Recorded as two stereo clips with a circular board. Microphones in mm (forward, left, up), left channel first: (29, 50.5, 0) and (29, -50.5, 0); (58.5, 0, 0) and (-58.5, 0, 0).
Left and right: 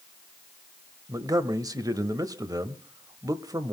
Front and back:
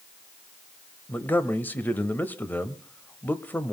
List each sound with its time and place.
1.1 s a man speaking: 65° right, 1.1 m